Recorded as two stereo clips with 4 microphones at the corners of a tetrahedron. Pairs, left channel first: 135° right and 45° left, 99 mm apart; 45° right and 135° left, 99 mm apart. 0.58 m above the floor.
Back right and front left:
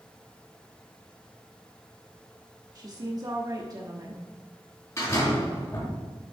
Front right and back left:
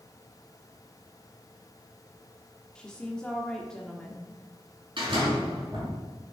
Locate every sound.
2.8 s a woman speaking: 30° left, 1.0 m
5.0 s a door slam: 170° left, 4.5 m